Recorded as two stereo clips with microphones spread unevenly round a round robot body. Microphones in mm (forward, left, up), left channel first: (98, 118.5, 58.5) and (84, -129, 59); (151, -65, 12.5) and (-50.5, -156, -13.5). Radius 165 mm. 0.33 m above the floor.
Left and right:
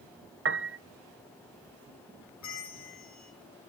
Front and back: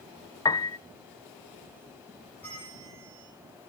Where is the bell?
110° left, 6.5 m.